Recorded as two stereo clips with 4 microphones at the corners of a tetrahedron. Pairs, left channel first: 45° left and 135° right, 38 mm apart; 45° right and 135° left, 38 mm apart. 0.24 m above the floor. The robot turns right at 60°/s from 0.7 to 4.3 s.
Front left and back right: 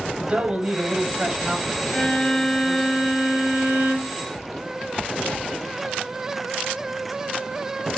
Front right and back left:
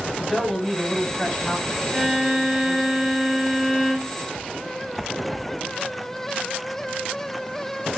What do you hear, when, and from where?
0.2 s a man speaking: 120° right, 1.1 m; by 2.9 s 10° left, 1.1 m
1.9 s a violin: 95° left, 0.9 m; by 4.2 s 130° right, 0.9 m